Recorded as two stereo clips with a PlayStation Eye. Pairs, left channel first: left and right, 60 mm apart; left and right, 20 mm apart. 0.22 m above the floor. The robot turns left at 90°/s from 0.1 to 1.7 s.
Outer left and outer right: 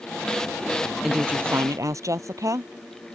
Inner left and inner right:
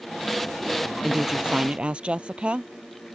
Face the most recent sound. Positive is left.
turn(degrees=-60)